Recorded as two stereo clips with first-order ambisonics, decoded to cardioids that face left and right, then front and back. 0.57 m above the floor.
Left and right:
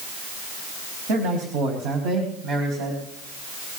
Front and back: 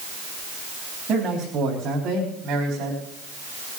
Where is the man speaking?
110° right, 3.5 m; by 3.0 s 130° right, 3.5 m.